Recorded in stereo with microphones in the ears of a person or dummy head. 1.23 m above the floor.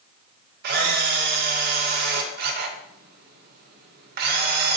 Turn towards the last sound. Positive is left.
turn(degrees=-55)  # may be behind; listen again after turning